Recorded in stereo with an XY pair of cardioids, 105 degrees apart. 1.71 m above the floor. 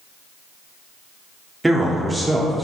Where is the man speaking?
10° right, 0.7 m.